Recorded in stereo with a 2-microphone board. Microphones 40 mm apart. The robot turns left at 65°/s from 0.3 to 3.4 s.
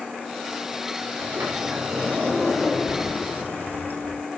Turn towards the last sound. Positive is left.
turn(degrees=125)